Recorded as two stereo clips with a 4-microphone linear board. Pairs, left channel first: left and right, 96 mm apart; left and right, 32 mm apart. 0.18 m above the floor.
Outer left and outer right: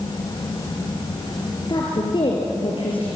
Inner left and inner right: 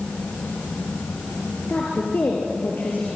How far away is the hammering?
No hammering in this recording.